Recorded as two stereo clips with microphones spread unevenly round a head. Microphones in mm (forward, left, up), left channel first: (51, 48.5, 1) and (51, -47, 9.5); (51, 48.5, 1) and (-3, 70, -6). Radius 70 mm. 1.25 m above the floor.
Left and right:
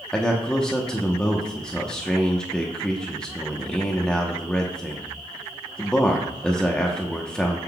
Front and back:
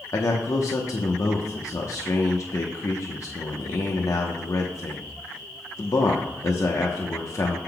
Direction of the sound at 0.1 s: 10° left.